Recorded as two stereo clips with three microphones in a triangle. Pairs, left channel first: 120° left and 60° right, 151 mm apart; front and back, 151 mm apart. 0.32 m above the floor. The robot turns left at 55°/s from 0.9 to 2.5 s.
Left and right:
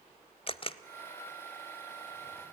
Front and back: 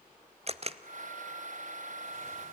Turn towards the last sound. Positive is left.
turn(degrees=65)